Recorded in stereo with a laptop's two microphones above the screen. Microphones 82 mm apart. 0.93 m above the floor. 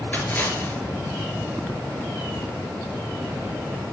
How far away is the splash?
About 6 m.